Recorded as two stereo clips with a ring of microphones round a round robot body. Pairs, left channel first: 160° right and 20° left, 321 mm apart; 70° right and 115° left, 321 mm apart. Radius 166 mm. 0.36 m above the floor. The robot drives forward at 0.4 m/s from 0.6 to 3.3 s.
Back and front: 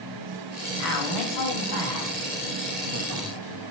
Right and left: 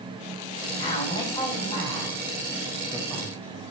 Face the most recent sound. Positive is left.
turn(degrees=-150)